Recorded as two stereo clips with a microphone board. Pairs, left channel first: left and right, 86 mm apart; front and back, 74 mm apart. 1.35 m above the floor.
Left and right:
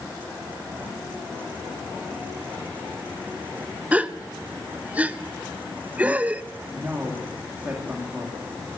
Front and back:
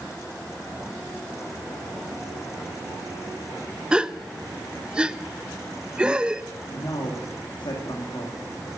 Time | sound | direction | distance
3.9 | a gasp | 130° right | 0.6 m
6.7 | a man speaking | 20° right | 2.5 m